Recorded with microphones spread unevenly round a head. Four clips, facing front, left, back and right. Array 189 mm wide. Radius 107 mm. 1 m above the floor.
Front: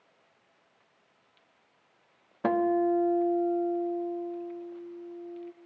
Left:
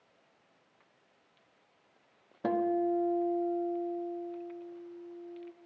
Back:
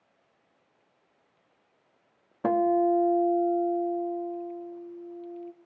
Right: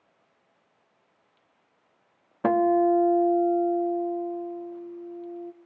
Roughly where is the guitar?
Ahead right.